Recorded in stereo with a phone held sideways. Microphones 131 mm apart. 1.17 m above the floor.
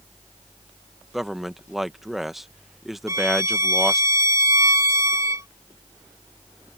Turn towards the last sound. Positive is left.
turn(degrees=-25)  # may be behind; listen again after turning